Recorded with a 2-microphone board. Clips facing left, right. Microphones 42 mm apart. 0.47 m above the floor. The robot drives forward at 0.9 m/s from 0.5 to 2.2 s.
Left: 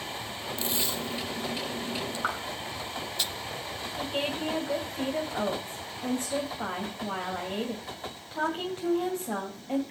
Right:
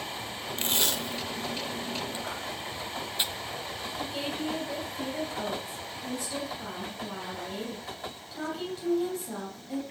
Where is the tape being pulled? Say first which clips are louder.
Right 3 dB; 50° right (ahead or behind), 0.6 m; by 3.2 s 25° right (ahead or behind), 1.2 m.